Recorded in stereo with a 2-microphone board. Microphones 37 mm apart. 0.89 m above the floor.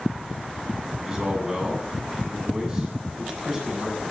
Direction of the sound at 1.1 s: 15° right (ahead or behind).